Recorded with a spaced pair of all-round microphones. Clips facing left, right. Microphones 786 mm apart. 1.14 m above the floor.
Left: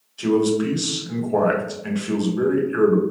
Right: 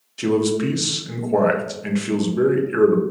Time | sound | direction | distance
0.2 | a man speaking | 60° right (ahead or behind) | 0.6 m